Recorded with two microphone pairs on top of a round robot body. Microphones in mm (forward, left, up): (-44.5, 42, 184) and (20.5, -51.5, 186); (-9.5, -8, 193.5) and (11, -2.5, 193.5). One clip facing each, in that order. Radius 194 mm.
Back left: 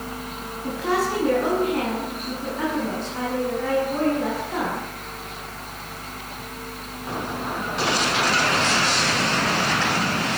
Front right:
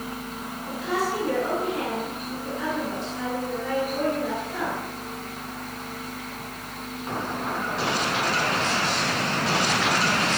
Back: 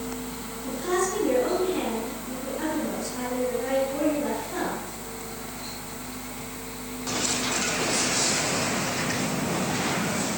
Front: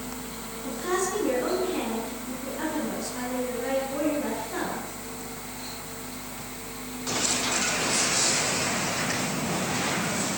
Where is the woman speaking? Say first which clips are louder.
Back left 4 dB, back 2 dB; 90° left, 9 m.